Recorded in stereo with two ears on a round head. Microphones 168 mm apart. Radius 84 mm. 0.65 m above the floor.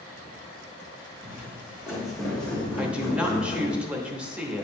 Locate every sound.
1.2 s footsteps: 15° right (ahead or behind), 2 m; by 3.8 s 25° left (ahead or behind), 2.0 m
2.8 s a woman speaking: 5° right (ahead or behind), 0.8 m